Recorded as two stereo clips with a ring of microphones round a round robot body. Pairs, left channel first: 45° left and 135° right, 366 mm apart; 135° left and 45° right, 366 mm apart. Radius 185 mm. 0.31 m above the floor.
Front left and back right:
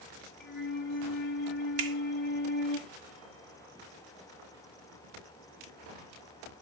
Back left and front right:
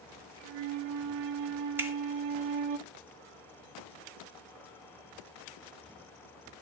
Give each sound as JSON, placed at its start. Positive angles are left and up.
{"t": 0.4, "sound": "a flute", "azimuth_deg": -20, "distance_m": 0.7}
{"t": 1.8, "sound": "a finger snap", "azimuth_deg": -130, "distance_m": 1.1}